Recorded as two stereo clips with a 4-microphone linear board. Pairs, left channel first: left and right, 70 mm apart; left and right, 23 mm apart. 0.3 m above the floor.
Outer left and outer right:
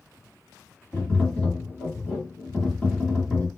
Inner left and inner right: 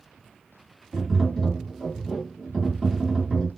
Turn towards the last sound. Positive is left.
turn(degrees=15)  # may be behind; listen again after turning